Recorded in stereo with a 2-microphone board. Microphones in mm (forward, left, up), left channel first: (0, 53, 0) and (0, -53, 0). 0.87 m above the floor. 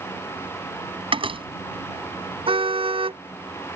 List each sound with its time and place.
1.1 s a door slam: 60° right (ahead or behind)
2.5 s a car horn: 60° right (ahead or behind)